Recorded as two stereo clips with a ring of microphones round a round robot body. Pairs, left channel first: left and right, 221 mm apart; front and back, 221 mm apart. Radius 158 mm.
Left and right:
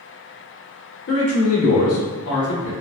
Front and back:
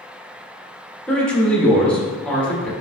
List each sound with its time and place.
1.1 s a man speaking: 85° left, 1.6 m